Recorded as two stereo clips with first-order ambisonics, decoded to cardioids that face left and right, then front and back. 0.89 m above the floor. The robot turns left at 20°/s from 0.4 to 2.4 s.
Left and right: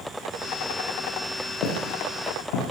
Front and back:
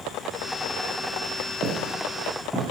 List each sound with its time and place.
1.6 s footsteps: 115° left, 5.5 m; by 2.7 s 90° left, 6 m